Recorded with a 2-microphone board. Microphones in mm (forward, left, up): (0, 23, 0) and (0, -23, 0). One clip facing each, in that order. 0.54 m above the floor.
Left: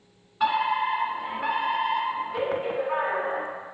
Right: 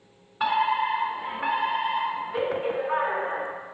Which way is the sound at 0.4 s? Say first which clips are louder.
Even; 5° right (ahead or behind).